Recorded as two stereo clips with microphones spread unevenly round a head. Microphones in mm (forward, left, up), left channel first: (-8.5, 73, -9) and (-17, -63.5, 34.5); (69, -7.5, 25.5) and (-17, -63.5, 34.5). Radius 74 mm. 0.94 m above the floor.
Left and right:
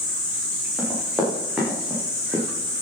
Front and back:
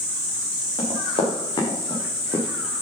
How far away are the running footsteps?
About 5.5 m.